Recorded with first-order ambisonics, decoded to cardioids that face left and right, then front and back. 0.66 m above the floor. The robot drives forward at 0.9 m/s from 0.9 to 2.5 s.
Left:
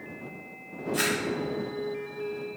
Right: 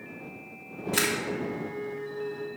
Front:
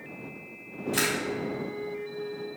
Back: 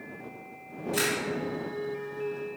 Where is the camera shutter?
80° right, 1.7 m; by 1.1 s 90° right, 1.7 m.